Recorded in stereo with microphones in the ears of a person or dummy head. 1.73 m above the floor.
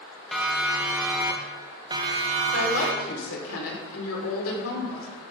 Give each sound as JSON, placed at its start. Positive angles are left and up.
{"t": 0.3, "sound": "a siren", "side_deg": 0, "distance_m": 3.0}
{"t": 2.5, "sound": "a woman speaking", "side_deg": 85, "distance_m": 6.0}